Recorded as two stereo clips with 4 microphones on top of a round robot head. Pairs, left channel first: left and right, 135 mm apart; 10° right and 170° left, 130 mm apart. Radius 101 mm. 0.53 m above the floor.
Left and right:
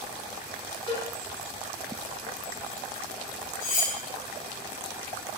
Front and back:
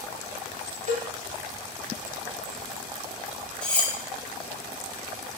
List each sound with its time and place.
0.9 s a cowbell: 140° left, 0.7 m
3.6 s cutlery clinking: 75° left, 0.6 m